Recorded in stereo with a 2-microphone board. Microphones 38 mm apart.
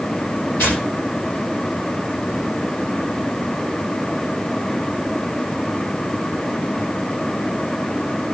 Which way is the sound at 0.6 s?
65° left (ahead or behind).